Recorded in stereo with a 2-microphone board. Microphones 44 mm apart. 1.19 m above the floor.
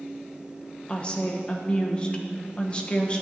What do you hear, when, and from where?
0.9 s a woman speaking: 25° left (ahead or behind), 1.0 m